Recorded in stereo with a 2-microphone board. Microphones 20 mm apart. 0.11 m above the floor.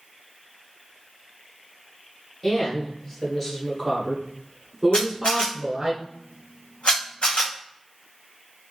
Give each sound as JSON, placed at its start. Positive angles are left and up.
{"t": 2.4, "sound": "a woman speaking", "side_deg": 25, "distance_m": 2.0}
{"t": 4.9, "sound": "a camera shutter", "side_deg": 85, "distance_m": 1.3}